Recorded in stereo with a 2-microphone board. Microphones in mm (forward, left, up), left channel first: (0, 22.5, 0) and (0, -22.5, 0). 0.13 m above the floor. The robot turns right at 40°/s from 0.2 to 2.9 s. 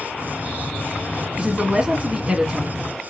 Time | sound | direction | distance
1.4 | a woman speaking | 20° right (ahead or behind) | 1.4 m